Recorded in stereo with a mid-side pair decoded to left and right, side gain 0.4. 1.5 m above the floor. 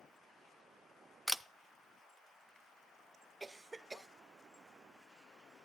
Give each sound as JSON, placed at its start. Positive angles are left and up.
{"t": 1.3, "sound": "a camera shutter", "azimuth_deg": -5, "distance_m": 0.6}
{"t": 3.4, "sound": "a cough", "azimuth_deg": -25, "distance_m": 0.7}